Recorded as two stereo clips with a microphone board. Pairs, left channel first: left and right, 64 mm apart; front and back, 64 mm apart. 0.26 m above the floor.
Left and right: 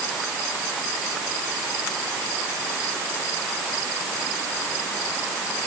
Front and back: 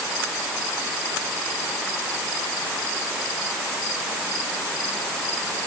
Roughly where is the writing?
No writing in this recording.